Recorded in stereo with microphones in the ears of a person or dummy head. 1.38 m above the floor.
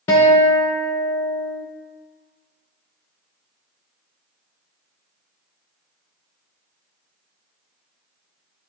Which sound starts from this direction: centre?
A guitar, at 0.1 s.